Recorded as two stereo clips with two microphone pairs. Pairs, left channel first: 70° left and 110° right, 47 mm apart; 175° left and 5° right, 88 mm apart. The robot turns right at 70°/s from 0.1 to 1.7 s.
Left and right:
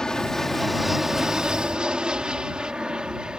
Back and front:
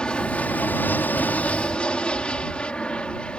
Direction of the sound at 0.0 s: 115° left.